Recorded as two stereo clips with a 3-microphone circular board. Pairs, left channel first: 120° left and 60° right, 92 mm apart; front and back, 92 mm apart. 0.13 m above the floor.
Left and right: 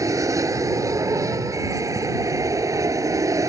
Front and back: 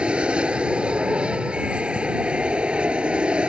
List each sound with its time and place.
0.0 s an aircraft: 105° right